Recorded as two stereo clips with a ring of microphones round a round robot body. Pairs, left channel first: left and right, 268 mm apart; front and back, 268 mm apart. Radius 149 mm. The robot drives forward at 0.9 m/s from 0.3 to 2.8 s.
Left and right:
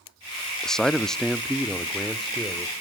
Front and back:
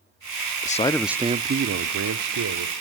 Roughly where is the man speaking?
Ahead.